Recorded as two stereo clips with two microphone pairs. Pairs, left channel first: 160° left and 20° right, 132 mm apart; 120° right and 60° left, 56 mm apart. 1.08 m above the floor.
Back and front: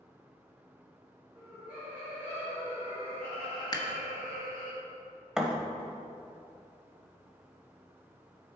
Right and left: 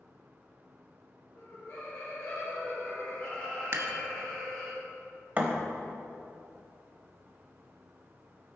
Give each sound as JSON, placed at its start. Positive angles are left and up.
{"t": 1.4, "sound": "laughter", "azimuth_deg": -105, "distance_m": 3.0}
{"t": 3.7, "sound": "dishes clattering", "azimuth_deg": 105, "distance_m": 0.9}
{"t": 5.4, "sound": "a thud", "azimuth_deg": 60, "distance_m": 0.9}